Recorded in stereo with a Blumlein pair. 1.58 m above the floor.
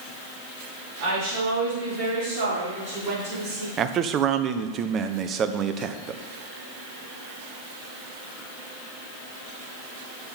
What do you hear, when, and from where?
1.0 s a woman speaking: 45° right, 4 m; by 3.7 s 40° right, 5 m
3.8 s a man speaking: 30° right, 0.7 m